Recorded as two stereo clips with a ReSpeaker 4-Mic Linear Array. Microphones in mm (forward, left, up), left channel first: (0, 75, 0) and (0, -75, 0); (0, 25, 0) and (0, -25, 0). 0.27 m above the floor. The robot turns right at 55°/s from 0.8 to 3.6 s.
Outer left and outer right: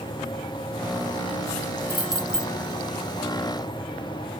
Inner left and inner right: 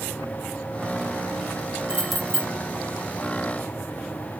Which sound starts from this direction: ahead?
Keys jangling, at 1.9 s.